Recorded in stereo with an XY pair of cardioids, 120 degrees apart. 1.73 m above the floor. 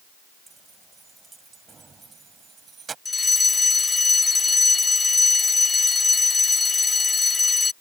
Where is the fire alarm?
25° left.